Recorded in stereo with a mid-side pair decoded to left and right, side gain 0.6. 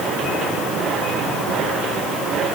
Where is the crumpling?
No crumpling in this recording.